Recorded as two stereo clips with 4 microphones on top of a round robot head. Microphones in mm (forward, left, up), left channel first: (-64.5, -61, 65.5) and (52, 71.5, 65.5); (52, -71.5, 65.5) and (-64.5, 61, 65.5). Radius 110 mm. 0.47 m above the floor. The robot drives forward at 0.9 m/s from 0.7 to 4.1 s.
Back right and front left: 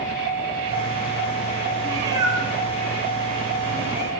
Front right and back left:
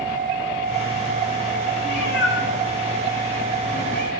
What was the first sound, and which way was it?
A cat meowing, 20° right.